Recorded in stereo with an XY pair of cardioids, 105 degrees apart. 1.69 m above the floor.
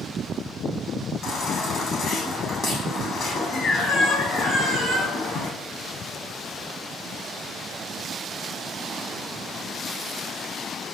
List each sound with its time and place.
1.2 s a baby crying: 50° left, 7.5 m